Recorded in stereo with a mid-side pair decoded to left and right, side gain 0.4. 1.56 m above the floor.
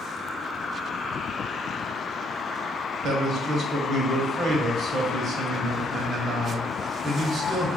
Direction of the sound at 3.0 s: 60° right.